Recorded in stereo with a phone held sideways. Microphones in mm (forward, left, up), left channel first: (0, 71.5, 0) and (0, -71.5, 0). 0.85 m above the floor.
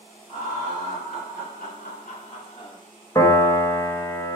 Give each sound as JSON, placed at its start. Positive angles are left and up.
{"t": 0.3, "sound": "laughter", "side_deg": 70, "distance_m": 2.5}
{"t": 3.1, "sound": "a piano", "side_deg": 25, "distance_m": 0.9}